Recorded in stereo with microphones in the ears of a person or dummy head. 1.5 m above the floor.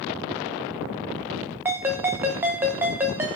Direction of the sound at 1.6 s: 10° right (ahead or behind).